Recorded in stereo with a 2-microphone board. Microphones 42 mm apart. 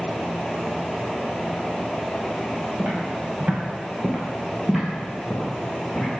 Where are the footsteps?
55° right (ahead or behind), 2.5 m; by 6.1 s 15° left (ahead or behind), 3.5 m.